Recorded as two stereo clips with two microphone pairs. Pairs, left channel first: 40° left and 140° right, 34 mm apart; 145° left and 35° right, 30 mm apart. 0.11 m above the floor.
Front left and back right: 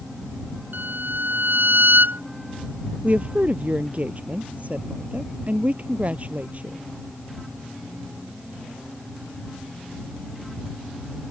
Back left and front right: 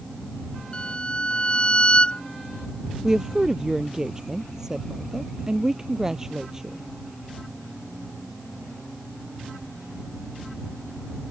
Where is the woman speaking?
105° right.